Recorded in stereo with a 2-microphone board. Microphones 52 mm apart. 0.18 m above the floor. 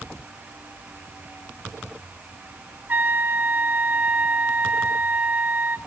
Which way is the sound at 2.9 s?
35° right (ahead or behind).